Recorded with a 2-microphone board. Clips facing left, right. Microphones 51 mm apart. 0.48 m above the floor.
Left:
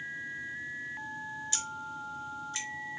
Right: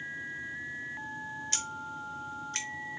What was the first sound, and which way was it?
Scissors, 55° right (ahead or behind).